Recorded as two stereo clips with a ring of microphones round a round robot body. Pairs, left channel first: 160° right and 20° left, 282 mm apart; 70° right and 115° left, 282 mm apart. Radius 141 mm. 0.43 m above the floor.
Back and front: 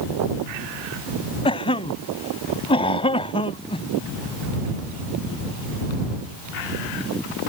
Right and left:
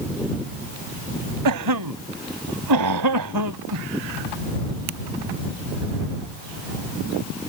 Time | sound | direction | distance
1.4 | a cough | 130° left | ?